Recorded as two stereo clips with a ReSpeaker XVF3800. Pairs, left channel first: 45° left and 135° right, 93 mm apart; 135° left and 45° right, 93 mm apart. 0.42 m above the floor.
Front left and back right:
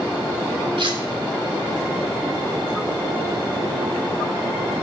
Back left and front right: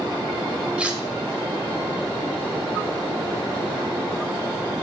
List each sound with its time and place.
0.8 s cutlery clinking: 120° right, 1.1 m